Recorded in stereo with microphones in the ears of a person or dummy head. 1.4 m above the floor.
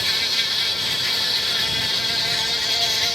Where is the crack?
No crack in this recording.